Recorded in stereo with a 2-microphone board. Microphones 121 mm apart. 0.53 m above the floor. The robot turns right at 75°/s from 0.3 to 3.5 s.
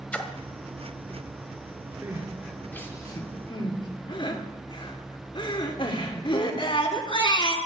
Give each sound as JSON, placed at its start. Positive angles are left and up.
{"t": 0.1, "sound": "a splash", "side_deg": 10, "distance_m": 1.4}
{"t": 2.0, "sound": "crying", "side_deg": -20, "distance_m": 1.7}